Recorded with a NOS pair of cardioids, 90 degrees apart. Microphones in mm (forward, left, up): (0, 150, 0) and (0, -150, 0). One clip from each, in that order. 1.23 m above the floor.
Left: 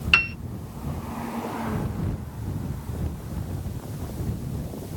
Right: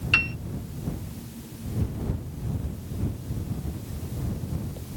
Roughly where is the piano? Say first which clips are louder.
Left 3 dB; ahead left.